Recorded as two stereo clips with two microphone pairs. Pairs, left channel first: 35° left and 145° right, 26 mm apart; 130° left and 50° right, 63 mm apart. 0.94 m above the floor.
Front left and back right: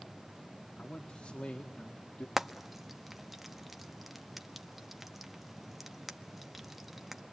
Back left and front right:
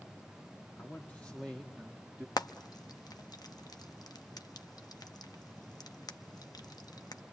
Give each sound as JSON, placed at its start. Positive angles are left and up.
{"t": 0.8, "sound": "a man speaking", "azimuth_deg": 75, "distance_m": 2.5}
{"t": 2.4, "sound": "frying", "azimuth_deg": 130, "distance_m": 1.0}